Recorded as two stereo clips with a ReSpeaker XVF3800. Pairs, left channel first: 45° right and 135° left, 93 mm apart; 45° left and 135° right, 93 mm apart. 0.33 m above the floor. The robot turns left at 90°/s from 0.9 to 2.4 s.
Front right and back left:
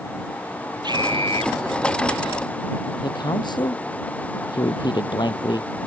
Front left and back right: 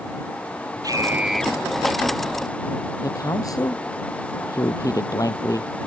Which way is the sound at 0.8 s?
175° left.